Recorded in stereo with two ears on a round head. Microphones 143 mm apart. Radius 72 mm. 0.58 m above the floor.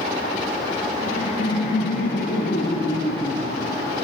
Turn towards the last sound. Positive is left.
turn(degrees=80)